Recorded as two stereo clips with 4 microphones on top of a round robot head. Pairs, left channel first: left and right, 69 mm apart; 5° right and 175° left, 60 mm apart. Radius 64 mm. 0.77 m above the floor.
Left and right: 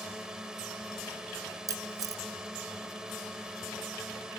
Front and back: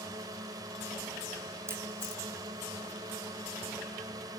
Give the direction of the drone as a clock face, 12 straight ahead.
6 o'clock.